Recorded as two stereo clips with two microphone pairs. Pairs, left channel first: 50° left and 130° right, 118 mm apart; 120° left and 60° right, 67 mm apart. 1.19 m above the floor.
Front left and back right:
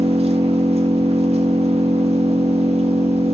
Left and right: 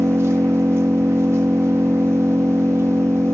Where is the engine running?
105° right, 0.9 m.